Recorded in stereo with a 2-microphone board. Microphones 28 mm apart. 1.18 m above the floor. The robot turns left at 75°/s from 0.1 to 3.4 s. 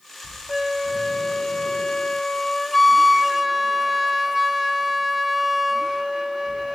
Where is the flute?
5° right (ahead or behind).